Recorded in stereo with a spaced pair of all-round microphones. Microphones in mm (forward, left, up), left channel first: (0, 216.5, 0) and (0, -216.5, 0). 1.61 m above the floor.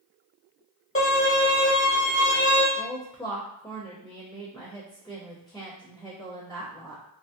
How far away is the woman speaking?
About 0.7 m.